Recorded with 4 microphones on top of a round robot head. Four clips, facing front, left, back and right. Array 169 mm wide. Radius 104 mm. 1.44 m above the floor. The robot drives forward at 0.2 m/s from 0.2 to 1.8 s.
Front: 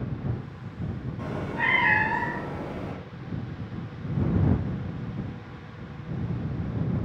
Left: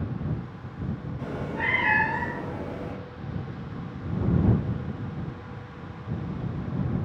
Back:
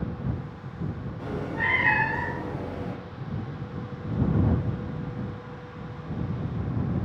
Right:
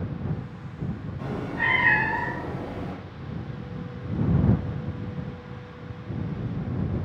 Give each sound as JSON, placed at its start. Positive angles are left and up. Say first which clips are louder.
{"t": 1.2, "sound": "a cat meowing", "louder": "right 2 dB, even", "azimuth_deg": -20, "distance_m": 1.0}